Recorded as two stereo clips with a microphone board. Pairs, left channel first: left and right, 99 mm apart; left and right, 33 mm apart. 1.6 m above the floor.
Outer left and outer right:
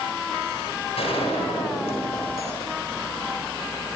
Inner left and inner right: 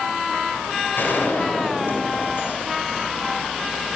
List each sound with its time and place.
1.0 s a gunshot: 80° left, 8 m